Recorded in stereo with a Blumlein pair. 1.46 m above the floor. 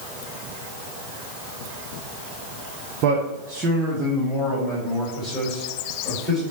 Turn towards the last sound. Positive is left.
turn(degrees=5)